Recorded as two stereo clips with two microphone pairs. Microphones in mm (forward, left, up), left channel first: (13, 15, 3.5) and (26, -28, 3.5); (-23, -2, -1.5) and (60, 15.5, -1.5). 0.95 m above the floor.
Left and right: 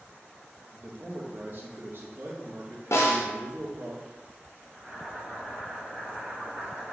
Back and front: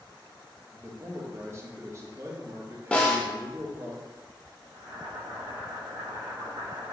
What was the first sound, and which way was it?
A man speaking, 40° right.